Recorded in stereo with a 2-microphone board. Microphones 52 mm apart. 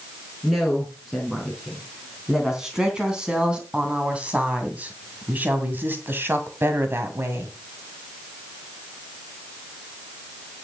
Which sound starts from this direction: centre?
A woman speaking, at 0.4 s.